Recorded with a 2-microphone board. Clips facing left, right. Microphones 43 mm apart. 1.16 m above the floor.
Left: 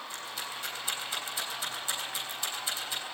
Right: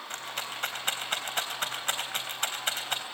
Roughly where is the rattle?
Right.